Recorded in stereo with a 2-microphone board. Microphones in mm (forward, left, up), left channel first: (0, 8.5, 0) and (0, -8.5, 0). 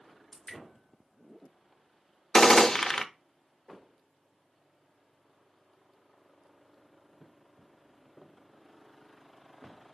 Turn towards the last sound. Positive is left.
turn(degrees=35)  # may be behind; listen again after turning